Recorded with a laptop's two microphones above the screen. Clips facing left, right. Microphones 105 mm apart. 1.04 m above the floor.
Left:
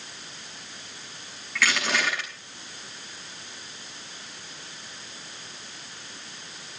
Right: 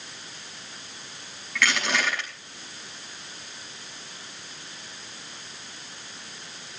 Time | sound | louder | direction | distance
1.6 | crushing | even | 5° left (ahead or behind) | 5.5 m